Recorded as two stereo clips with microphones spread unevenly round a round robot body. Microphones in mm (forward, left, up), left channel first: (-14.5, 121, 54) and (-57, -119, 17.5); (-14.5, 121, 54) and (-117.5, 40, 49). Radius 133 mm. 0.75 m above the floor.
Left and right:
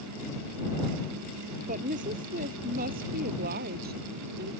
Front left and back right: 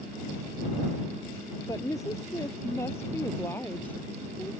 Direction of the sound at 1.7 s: 40° right.